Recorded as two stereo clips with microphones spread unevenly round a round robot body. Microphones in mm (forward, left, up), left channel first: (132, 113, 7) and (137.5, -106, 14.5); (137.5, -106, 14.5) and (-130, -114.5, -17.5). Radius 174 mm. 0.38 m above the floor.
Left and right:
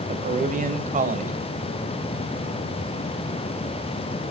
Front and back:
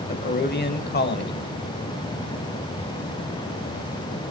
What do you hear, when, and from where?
0.1 s a man speaking: 45° right, 2.5 m